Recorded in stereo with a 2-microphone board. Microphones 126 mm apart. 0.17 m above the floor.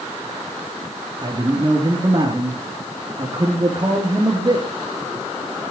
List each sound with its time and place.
1.2 s a man speaking: 35° right (ahead or behind), 3.5 m